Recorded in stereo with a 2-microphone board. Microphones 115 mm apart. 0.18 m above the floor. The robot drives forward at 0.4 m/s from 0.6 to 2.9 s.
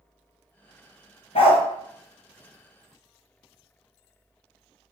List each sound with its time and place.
1.4 s a dog barking: 65° left (ahead or behind), 0.6 m; by 1.6 s 60° left (ahead or behind), 0.6 m